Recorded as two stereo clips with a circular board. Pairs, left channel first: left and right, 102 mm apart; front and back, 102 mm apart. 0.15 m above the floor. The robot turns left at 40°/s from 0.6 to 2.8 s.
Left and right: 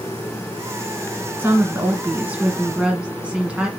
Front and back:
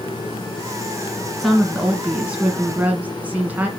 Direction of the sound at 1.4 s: 85° right.